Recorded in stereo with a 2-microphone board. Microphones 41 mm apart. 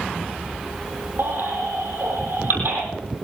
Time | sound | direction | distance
1.2 | a baby crying | 60° right (ahead or behind) | 6.5 m